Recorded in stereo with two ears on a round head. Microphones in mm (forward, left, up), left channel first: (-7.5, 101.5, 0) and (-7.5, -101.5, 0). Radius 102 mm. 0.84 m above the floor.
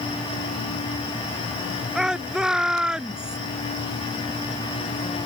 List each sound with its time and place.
1.9 s a shout: 5° right (ahead or behind)